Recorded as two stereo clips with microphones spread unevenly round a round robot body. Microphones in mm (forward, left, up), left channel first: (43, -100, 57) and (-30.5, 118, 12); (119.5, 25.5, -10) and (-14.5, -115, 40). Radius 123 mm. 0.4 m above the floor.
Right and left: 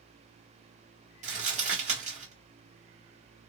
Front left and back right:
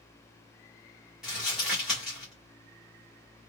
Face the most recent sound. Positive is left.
turn(degrees=125)